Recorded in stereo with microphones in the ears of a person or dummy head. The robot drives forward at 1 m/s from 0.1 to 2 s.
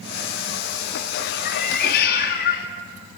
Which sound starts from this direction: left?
A cat meowing, at 1.4 s.